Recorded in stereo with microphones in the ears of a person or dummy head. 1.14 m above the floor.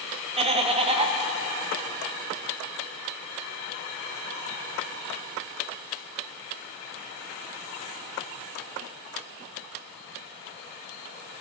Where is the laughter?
35° right (ahead or behind), 0.8 m.